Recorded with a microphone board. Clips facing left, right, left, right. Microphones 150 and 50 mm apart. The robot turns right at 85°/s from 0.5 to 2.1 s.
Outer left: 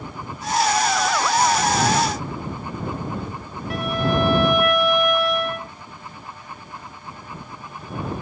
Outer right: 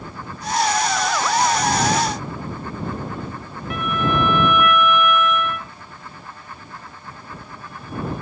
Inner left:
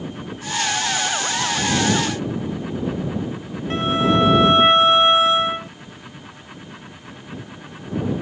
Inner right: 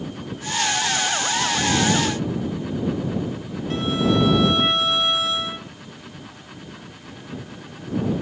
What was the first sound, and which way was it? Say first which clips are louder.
A violin: even, inner left 3 dB; 35° left (ahead or behind).